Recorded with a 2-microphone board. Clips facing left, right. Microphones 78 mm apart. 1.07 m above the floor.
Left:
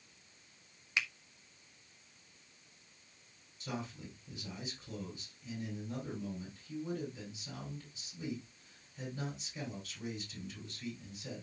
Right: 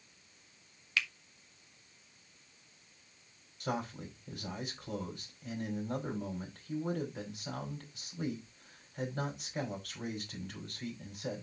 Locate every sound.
1.0 s a finger snap: 20° left (ahead or behind), 1.1 m
3.6 s a man speaking: 60° right (ahead or behind), 5 m